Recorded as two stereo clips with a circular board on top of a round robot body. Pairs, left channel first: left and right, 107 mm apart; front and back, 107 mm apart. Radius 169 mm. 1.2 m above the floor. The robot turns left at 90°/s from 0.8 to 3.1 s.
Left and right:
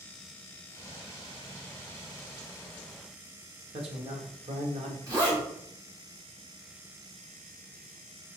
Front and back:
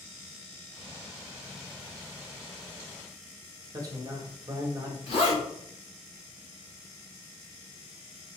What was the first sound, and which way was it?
A man speaking, 120° right.